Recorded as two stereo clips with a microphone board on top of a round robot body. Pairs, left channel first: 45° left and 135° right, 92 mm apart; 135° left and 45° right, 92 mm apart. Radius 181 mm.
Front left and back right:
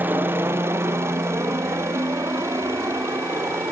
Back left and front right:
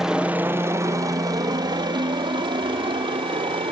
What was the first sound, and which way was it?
A helicopter, 120° right.